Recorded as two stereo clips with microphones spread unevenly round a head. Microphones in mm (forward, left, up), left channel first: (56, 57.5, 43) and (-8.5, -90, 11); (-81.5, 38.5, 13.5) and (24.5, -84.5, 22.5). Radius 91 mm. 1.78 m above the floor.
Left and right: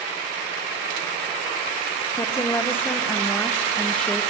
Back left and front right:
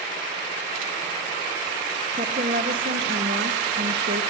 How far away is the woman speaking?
About 1.1 m.